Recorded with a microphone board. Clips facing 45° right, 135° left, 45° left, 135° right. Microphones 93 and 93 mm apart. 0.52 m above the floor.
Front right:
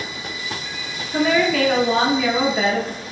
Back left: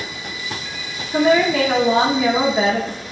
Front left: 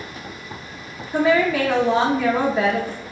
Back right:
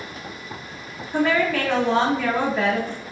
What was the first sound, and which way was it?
A woman speaking, 110° left.